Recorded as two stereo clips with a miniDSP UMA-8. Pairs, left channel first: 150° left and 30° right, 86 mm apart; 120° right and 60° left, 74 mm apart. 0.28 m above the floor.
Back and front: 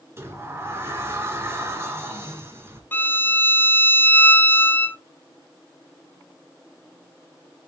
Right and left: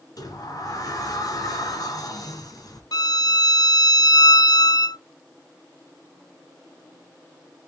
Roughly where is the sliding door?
Right.